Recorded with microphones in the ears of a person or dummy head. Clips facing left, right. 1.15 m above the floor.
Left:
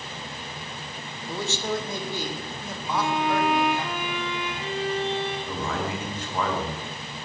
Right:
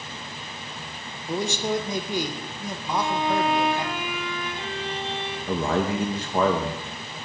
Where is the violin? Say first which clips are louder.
Even; 15° left (ahead or behind), 3 m.